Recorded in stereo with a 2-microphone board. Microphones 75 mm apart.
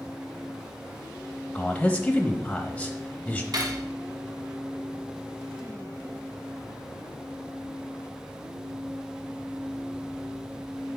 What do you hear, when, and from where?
1.6 s a man speaking: 20° left (ahead or behind), 0.9 m
3.5 s cutlery clinking: 55° right (ahead or behind), 1.4 m